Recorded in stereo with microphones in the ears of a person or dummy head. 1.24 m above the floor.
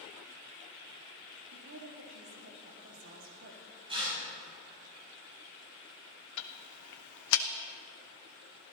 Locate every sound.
1.5 s a woman speaking: 50° right (ahead or behind), 1.9 m
3.9 s tearing paper: 25° right (ahead or behind), 7 m
6.4 s ticking: 70° left (ahead or behind), 0.8 m